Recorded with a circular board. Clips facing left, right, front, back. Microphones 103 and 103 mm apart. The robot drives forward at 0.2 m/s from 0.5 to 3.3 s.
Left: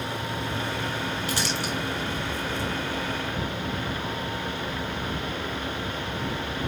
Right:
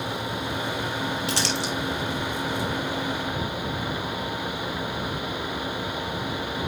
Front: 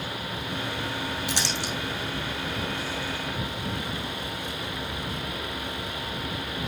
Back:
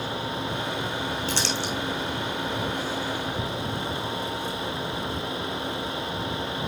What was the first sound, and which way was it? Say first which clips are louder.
Crumpling: right 2 dB, back 2 dB; 75° right.